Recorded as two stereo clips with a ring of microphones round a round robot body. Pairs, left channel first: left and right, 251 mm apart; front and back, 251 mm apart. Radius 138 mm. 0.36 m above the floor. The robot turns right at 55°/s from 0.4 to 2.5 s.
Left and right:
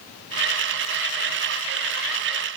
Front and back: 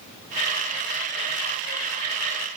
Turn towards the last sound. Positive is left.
No sound to turn to.